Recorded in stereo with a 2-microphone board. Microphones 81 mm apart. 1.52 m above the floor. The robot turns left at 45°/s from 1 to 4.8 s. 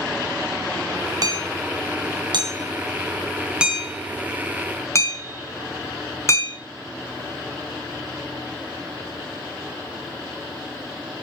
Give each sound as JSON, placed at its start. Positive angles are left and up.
{"t": 1.2, "sound": "hammering", "side_deg": -50, "distance_m": 3.0}